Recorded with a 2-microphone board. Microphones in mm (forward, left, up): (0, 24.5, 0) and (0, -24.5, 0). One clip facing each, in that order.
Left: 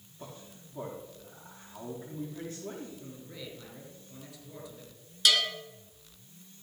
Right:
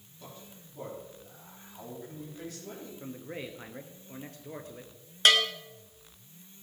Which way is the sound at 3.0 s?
45° right (ahead or behind).